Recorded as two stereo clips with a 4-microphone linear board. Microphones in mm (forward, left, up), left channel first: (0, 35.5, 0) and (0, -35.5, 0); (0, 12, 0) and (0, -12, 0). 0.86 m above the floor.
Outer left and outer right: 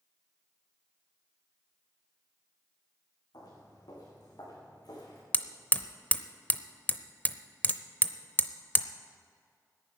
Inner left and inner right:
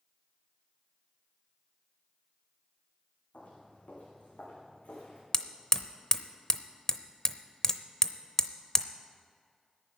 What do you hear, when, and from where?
3.3 s footsteps: 75° left (ahead or behind), 4 m; by 5.2 s 70° left (ahead or behind), 5 m
5.3 s hammering: 25° left (ahead or behind), 0.6 m